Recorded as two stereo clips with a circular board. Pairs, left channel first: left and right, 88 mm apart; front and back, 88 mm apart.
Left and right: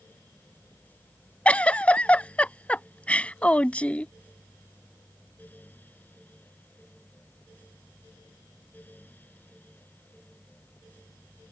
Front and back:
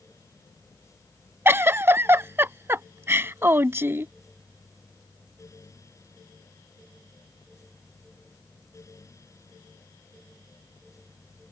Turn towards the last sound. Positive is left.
turn(degrees=150)